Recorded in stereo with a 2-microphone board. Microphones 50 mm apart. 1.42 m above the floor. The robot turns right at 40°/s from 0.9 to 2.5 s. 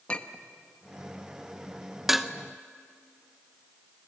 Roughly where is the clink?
Left.